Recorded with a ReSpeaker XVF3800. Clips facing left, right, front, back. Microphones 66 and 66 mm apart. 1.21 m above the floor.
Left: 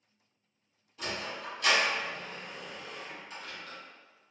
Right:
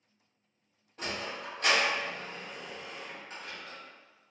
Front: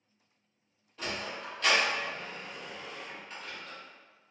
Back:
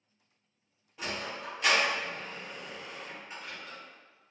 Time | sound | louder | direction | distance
1.0 | a sliding door | even, even | 110° right | 1.0 m